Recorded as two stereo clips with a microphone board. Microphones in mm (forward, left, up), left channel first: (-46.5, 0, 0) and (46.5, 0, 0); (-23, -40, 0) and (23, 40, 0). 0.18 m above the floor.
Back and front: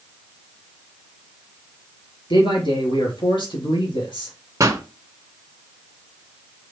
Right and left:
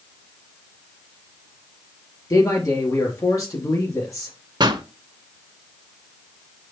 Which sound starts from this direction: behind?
A man speaking, at 2.3 s.